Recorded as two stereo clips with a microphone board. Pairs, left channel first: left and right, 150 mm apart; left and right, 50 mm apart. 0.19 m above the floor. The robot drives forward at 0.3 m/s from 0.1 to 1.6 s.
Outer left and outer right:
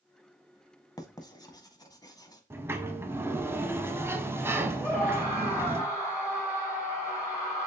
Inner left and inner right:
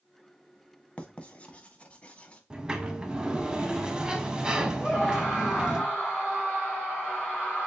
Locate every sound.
1.0 s writing: 25° left (ahead or behind), 0.6 m
2.5 s a sliding door: 15° right (ahead or behind), 0.5 m
4.8 s a scream: 20° left (ahead or behind), 2.5 m